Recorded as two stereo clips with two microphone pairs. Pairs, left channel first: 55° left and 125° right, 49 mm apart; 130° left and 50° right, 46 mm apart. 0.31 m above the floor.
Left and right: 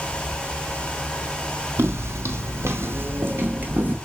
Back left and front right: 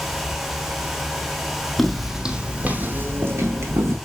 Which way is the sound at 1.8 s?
145° right.